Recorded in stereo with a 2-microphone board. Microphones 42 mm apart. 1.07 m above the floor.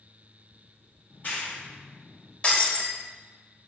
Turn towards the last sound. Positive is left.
turn(degrees=30)  # may be behind; listen again after turning